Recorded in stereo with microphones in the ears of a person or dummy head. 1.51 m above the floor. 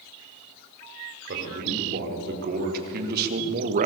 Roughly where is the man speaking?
Right.